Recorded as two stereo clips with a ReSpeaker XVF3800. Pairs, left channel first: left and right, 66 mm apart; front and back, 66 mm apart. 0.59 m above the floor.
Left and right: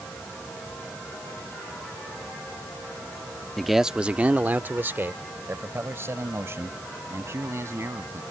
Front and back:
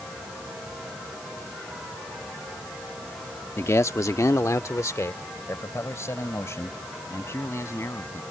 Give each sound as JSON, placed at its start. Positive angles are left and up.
{"t": 3.6, "sound": "a man speaking", "azimuth_deg": 5}